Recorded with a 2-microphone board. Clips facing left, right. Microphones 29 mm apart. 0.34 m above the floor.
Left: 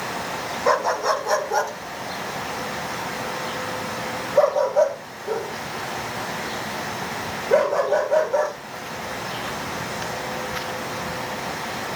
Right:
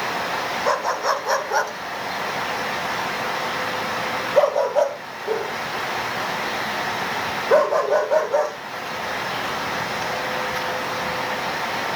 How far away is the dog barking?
About 1.1 m.